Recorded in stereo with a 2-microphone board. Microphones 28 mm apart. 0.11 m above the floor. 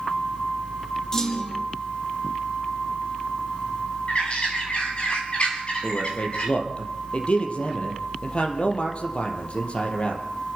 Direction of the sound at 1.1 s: 15° left (ahead or behind).